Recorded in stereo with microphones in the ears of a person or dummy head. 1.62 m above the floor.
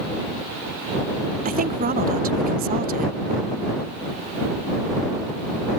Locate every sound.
1.4 s a woman speaking: 40° right (ahead or behind)